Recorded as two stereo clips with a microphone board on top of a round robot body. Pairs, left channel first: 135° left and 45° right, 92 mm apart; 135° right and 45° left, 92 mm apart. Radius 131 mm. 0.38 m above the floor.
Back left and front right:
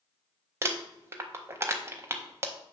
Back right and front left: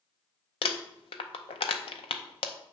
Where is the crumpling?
110° right, 0.5 m.